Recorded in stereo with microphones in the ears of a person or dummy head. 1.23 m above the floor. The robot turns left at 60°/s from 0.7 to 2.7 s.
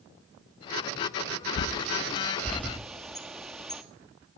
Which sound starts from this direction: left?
A bird, at 1.6 s.